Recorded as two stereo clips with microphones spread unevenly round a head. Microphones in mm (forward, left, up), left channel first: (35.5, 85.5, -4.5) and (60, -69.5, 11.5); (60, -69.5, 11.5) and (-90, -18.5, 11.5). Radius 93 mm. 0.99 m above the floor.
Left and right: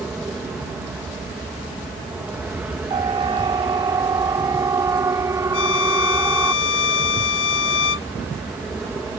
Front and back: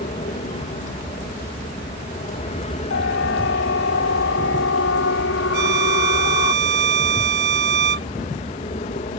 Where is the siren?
25° right; by 6.5 s 5° right.